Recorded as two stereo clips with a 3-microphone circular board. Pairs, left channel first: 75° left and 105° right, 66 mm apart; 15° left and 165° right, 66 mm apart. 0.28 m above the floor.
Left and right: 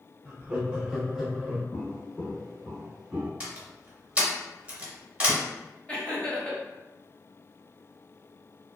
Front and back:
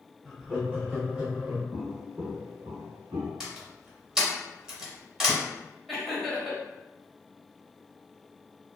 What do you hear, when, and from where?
0.2 s laughter: 95° right, 1.1 m; by 1.6 s 155° left, 1.2 m
1.7 s footsteps: 130° left, 0.9 m; by 3.3 s 175° left, 1.2 m
3.4 s a door slam: 100° right, 0.7 m
5.9 s laughter: 105° left, 1.0 m